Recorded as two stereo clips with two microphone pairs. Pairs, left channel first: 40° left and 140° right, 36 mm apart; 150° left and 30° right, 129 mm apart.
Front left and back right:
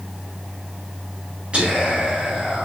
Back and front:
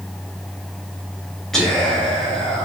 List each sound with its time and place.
1.5 s whispering: 130° right, 1.2 m